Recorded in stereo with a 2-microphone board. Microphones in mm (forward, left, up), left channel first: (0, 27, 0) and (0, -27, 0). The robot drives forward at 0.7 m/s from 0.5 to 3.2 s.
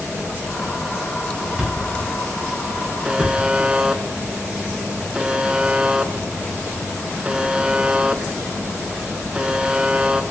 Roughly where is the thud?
Centre.